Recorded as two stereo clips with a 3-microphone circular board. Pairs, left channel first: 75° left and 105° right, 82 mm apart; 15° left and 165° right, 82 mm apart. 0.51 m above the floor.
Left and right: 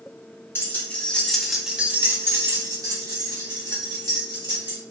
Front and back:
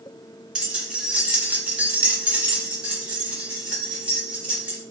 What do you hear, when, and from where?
0.6 s keys jangling: 120° left, 0.9 m; by 4.8 s 90° right, 1.7 m